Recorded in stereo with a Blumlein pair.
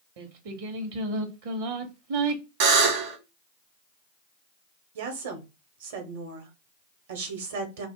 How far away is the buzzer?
About 1.0 m.